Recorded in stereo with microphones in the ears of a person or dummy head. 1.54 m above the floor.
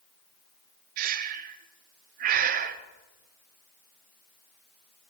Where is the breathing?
50° right (ahead or behind), 0.8 m.